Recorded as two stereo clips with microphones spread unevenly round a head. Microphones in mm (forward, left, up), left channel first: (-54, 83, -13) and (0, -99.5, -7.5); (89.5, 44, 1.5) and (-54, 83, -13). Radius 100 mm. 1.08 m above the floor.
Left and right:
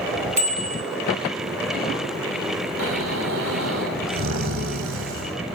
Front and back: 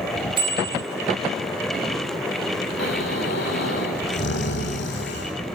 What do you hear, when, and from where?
0.4 s a bicycle bell: 125° right, 4.5 m
2.8 s snoring: 45° right, 4.5 m